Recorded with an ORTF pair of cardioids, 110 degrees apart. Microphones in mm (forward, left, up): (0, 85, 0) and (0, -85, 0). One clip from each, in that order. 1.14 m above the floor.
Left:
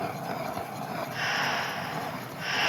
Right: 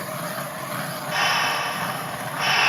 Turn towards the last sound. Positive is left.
turn(degrees=-70)